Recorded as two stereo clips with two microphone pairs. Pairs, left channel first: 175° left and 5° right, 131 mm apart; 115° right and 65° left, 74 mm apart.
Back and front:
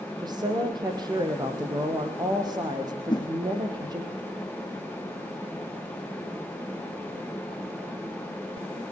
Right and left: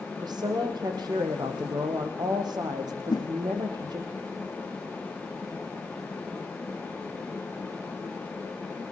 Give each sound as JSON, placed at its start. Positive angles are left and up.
{"t": 0.2, "sound": "a woman speaking", "azimuth_deg": 50, "distance_m": 5.5}
{"t": 3.1, "sound": "a whoosh", "azimuth_deg": -130, "distance_m": 1.4}